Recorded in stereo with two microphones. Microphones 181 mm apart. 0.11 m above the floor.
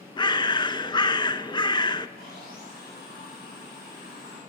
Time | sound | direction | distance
0.2 | a bird | 25° left (ahead or behind) | 0.5 m
2.2 | sawing | 60° left (ahead or behind) | 8.5 m